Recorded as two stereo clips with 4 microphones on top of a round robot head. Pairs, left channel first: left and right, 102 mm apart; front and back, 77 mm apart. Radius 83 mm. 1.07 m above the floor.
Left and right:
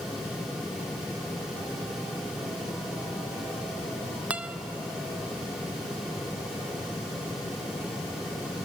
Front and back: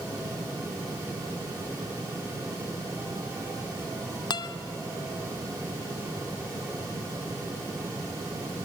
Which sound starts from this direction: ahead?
A guitar, at 4.3 s.